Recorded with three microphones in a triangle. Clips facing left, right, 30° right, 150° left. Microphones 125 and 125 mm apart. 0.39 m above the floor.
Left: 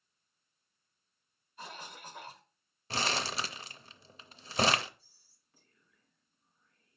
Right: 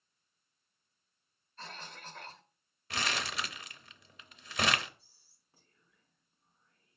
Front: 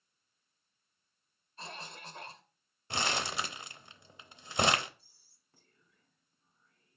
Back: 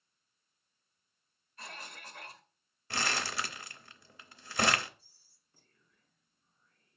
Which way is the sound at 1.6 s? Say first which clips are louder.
Left 1 dB, front 2 dB; 20° left.